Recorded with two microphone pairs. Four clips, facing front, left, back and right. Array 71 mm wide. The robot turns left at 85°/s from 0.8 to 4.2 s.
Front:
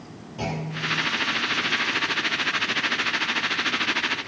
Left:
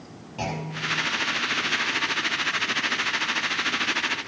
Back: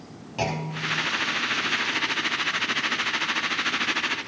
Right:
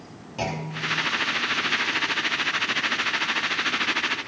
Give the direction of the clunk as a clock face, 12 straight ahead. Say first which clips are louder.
Right 1 dB, back 1 dB; 6 o'clock.